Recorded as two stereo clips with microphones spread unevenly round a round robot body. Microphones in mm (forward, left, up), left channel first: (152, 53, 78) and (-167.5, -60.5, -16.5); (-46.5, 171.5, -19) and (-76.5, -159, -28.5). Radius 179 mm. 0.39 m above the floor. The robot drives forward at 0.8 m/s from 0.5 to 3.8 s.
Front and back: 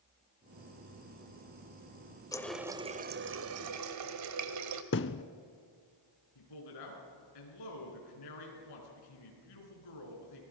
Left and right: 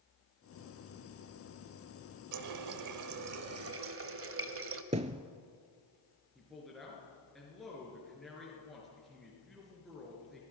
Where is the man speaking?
5° right, 5 m.